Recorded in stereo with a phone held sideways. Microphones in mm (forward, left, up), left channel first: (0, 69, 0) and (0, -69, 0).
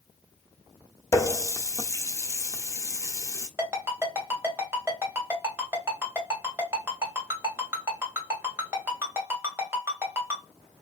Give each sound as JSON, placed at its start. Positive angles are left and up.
{"t": 1.1, "sound": "a running tap", "side_deg": 20, "distance_m": 0.7}
{"t": 3.6, "sound": "a ringtone", "side_deg": -15, "distance_m": 1.9}